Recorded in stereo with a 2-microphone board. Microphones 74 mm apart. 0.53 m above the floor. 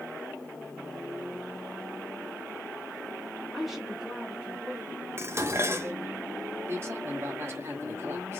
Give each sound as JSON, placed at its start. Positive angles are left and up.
{"t": 3.5, "sound": "a woman speaking", "side_deg": 0, "distance_m": 1.3}
{"t": 5.2, "sound": "dishes clattering", "side_deg": -40, "distance_m": 0.5}
{"t": 6.7, "sound": "a man speaking", "side_deg": -40, "distance_m": 1.7}